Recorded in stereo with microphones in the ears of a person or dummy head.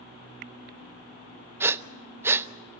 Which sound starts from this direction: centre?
Breathing, at 1.6 s.